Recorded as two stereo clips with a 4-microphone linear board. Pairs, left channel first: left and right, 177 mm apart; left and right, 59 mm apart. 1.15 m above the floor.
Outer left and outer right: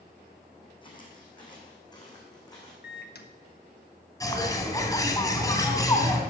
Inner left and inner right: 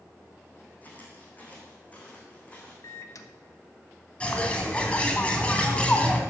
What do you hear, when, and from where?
0.8 s footsteps: 25° left (ahead or behind), 4 m; by 2.7 s 20° left (ahead or behind), 5.5 m
2.8 s a microwave: 65° left (ahead or behind), 1.2 m
4.2 s a bird: 20° left (ahead or behind), 2 m